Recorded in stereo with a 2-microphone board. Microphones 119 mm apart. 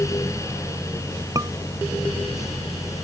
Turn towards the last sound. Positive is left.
turn(degrees=-30)  # may be behind; listen again after turning